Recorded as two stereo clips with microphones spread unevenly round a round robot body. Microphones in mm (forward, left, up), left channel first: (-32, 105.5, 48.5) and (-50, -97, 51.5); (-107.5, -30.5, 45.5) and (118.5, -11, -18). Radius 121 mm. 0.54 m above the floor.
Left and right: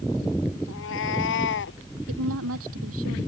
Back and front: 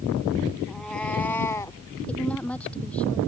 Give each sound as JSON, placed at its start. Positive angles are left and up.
{"t": 0.7, "sound": "a cat meowing", "azimuth_deg": 100}
{"t": 2.1, "sound": "a woman speaking", "azimuth_deg": -90}